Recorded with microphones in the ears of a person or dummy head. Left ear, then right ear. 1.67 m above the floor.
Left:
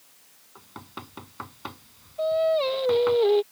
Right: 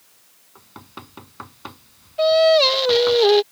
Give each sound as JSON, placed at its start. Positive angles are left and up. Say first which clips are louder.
{"t": 0.6, "sound": "knocking", "louder": "right 1 dB", "side_deg": -5}
{"t": 2.2, "sound": "singing", "louder": "right 9 dB", "side_deg": -65}